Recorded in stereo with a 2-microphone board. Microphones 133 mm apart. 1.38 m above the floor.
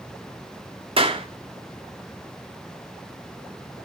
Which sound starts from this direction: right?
A clap, at 1.0 s.